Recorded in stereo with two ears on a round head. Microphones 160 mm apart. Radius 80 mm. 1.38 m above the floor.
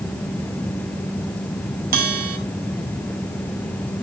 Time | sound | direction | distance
1.9 | a bell | 50° right (ahead or behind) | 5 m